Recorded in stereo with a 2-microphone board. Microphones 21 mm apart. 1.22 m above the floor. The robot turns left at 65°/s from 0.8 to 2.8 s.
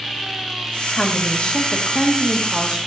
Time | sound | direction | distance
1.0 | a woman speaking | 80° left | 1.6 m